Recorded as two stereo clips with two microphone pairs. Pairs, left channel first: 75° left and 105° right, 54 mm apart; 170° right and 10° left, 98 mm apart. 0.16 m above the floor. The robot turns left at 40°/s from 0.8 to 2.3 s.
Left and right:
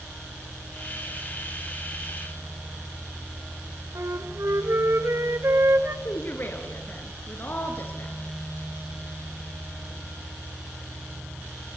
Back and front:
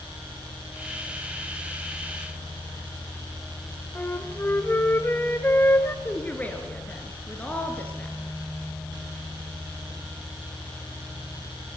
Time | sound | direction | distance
4.0 | a flute | 110° right | 1.2 m
6.0 | a woman speaking | 120° left | 2.5 m